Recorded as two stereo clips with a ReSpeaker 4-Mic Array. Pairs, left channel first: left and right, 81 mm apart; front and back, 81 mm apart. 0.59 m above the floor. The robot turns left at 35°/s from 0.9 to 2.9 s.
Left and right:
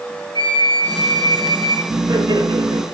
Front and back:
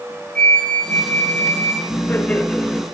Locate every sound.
0.3 s a flute: 75° left, 3 m; by 1.8 s 45° left, 3 m
1.9 s laughter: 55° right, 2.5 m; by 2.8 s 90° right, 2.5 m